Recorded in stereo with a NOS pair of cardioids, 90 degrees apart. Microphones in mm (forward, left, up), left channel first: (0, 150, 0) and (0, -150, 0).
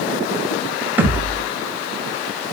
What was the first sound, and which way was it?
A thud, 5° right.